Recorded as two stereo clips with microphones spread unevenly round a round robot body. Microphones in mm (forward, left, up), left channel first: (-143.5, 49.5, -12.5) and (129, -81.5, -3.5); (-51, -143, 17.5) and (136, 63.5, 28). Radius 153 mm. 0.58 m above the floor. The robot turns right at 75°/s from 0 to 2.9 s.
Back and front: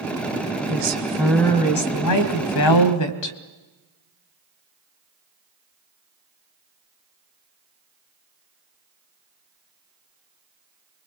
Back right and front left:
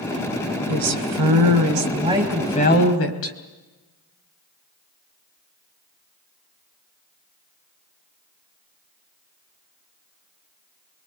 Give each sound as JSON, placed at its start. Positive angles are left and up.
{"t": 0.7, "sound": "a woman speaking", "azimuth_deg": 15, "distance_m": 3.0}